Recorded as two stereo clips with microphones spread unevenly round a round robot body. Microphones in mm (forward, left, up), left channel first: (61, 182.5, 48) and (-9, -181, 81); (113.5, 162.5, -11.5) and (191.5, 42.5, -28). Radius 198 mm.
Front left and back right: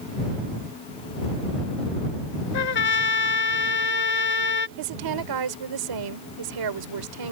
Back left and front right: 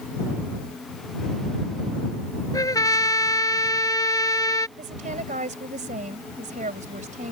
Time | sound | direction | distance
2.5 | a trumpet | 60° left | ?
4.8 | a woman speaking | 85° right | ?